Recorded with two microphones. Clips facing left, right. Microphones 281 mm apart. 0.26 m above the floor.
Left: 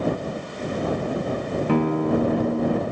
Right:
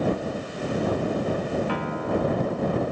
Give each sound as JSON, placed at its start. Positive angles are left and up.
{"t": 1.7, "sound": "a guitar", "side_deg": 55}